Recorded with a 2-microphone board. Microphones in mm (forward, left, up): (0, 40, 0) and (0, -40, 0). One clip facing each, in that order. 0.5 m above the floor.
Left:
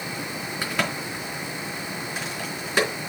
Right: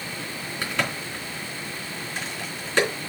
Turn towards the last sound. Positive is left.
turn(degrees=10)  # may be behind; listen again after turning